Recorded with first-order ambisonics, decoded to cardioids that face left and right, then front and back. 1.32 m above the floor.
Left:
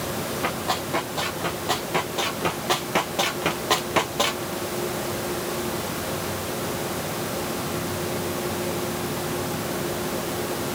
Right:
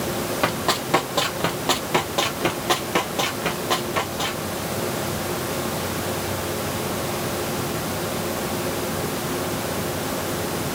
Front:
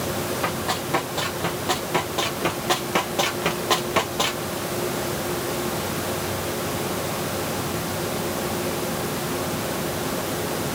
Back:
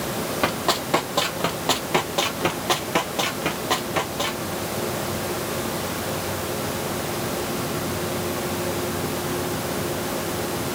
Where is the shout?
I don't hear a shout.